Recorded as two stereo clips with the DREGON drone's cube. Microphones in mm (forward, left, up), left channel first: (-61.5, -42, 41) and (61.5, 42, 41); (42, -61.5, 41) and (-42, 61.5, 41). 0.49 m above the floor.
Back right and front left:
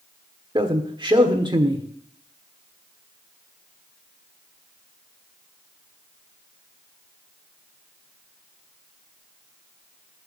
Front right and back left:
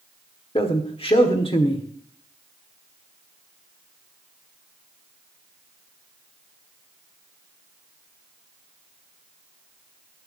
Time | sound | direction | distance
0.6 | a man speaking | 15° right | 1.4 m